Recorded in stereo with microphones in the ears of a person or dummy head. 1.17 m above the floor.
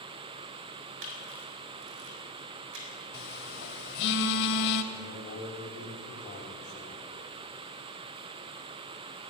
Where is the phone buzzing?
65° left (ahead or behind), 2.5 m.